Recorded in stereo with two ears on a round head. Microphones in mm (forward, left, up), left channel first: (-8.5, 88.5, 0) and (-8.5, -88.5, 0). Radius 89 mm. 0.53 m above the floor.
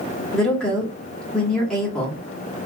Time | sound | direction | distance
0.3 | a woman speaking | 5° left (ahead or behind) | 1.2 m